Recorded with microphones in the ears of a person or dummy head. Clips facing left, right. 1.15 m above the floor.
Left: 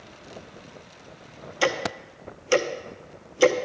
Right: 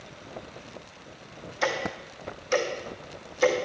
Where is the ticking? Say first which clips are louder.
Left 4 dB; 45° left (ahead or behind), 0.7 m.